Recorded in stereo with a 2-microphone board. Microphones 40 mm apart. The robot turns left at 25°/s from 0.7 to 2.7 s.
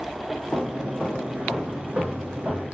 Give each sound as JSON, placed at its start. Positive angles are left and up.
{"t": 0.5, "sound": "footsteps", "side_deg": 25, "distance_m": 1.3}